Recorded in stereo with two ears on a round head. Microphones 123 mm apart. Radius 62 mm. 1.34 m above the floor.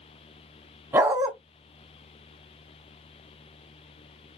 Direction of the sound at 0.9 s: 15° right (ahead or behind).